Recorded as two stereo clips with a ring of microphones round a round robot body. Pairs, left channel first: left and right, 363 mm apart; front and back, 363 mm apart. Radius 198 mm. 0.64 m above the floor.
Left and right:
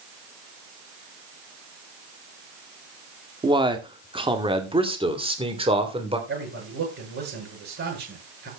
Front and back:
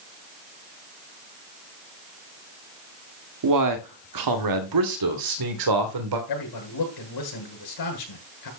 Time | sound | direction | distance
3.4 | a man speaking | 165° right | 1.9 m
6.3 | a man speaking | 25° right | 9 m